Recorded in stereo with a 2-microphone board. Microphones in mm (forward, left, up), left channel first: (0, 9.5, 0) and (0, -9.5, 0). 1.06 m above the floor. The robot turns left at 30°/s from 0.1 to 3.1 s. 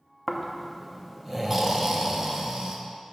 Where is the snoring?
5° left, 0.6 m; by 2.8 s 70° right, 0.6 m.